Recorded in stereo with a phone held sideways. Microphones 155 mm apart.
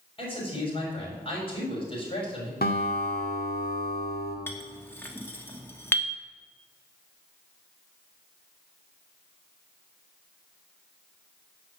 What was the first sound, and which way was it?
A man speaking, 35° left (ahead or behind).